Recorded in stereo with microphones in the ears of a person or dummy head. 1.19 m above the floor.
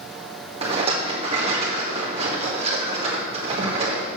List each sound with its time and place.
0.6 s a rattle: 25° right (ahead or behind), 1.6 m